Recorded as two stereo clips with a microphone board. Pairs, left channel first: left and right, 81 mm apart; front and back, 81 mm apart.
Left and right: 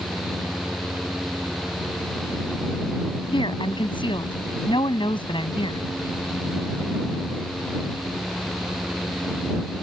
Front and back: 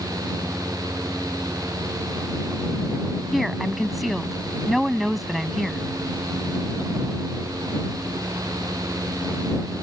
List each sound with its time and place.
3.3 s a woman speaking: 90° left